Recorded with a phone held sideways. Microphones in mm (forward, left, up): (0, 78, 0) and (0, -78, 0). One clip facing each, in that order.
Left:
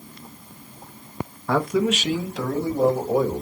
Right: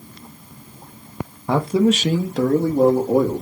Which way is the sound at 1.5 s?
20° right (ahead or behind).